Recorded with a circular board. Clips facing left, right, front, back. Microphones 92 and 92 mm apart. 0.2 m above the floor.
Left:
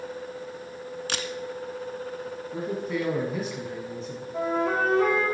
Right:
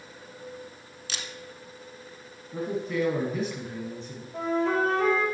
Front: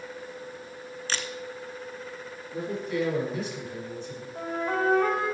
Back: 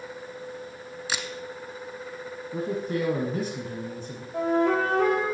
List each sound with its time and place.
1.1 s a camera shutter: 100° left, 0.7 m
2.5 s a man speaking: 175° left, 1.7 m
4.3 s a flute: 175° left, 3.5 m